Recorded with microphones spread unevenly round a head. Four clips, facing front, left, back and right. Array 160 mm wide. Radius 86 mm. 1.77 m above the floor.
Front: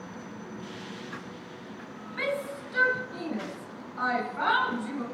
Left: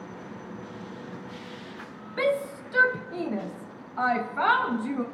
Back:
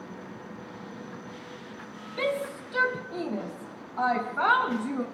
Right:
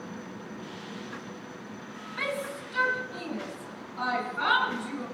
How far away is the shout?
About 1.7 m.